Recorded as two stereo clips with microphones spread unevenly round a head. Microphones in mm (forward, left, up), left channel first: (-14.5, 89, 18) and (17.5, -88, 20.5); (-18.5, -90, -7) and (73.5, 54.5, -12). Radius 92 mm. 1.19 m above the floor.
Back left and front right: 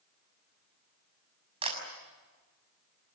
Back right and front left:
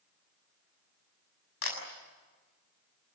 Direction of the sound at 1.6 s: 140° right.